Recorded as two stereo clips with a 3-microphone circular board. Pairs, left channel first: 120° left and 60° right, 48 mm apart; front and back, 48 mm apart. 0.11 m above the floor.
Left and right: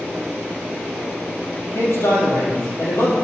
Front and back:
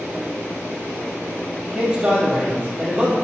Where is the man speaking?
110° left, 3 m.